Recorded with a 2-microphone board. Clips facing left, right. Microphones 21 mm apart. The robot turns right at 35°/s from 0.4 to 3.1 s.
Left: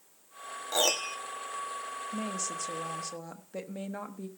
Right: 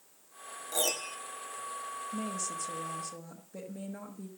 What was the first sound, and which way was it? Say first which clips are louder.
A piano: left 5 dB; 35° left (ahead or behind).